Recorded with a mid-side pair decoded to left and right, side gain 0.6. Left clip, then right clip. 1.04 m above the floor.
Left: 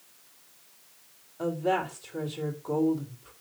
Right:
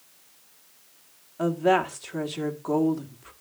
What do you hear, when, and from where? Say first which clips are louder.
1.4 s a woman speaking: right 5 dB; 50° right, 1.7 m